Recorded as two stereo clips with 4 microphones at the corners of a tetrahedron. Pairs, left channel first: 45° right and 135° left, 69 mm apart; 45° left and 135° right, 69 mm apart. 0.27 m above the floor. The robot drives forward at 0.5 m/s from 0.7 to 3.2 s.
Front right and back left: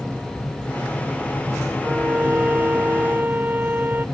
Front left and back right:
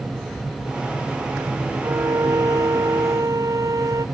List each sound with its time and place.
1.8 s a violin: 165° right